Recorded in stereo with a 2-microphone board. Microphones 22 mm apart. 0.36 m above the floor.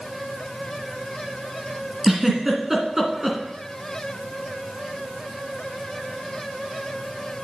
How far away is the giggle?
About 2.5 m.